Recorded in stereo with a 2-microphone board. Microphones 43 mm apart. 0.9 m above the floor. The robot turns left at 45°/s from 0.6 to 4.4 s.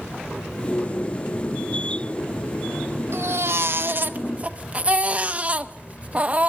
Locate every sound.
3.1 s a baby crying: 90° right, 0.6 m; by 6.5 s 145° right, 0.6 m